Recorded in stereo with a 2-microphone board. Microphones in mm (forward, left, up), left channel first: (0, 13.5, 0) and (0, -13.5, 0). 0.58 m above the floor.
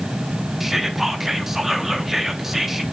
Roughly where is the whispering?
Centre.